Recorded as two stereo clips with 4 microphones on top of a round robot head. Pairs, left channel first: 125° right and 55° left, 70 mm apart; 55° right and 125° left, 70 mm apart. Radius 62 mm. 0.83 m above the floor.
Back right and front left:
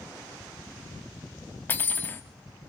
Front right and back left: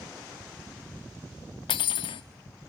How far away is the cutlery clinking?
About 0.7 m.